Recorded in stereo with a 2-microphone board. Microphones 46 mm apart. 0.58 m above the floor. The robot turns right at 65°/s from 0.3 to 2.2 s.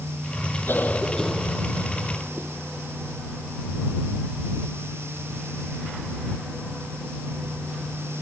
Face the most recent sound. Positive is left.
turn(degrees=-125)